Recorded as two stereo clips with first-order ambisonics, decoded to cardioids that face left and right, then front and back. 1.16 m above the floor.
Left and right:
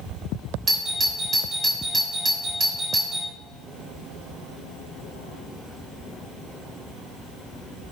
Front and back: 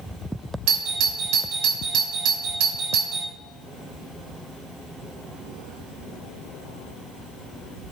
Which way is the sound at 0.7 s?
155° right.